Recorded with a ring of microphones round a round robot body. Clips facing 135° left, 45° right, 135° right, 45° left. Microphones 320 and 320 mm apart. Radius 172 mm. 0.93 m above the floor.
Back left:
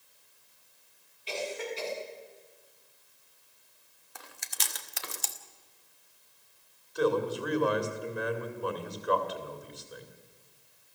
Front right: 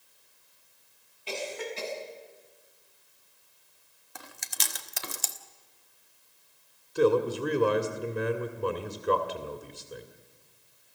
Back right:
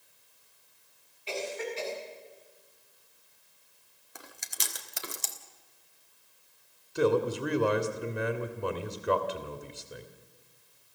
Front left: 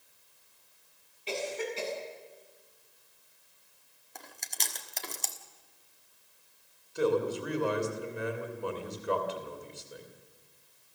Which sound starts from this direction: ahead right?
Chewing, at 4.2 s.